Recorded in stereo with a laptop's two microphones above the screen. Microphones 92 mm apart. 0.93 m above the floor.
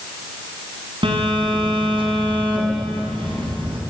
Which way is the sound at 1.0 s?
70° right (ahead or behind).